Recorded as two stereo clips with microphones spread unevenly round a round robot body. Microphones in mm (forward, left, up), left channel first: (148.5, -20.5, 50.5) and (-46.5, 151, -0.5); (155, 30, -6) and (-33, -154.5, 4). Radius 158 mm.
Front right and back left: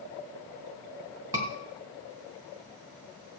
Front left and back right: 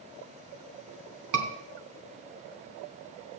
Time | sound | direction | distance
1.3 | a scream | 145° right | 3.5 m